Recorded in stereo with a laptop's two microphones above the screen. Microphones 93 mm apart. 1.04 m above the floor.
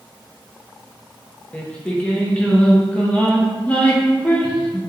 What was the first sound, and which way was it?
Singing, 15° left (ahead or behind).